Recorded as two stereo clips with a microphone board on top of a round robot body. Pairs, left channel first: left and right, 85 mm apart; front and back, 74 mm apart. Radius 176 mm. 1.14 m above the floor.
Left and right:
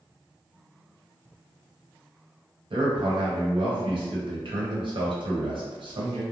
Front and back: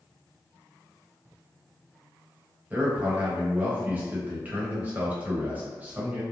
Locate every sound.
2.7 s a man speaking: 110° right, 1.1 m